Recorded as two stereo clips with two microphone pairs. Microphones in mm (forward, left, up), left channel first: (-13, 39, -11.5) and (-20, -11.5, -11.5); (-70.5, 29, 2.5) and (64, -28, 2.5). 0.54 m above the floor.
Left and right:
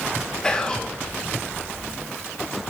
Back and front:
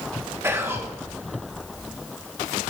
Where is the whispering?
30° left, 0.9 m.